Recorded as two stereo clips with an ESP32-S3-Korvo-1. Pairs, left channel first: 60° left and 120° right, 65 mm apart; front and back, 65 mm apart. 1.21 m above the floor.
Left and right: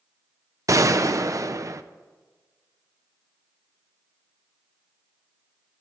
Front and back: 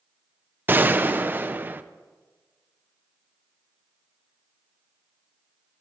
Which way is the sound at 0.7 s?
125° right.